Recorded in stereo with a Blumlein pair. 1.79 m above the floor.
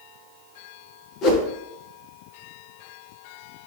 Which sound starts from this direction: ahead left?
A whoosh, at 1.2 s.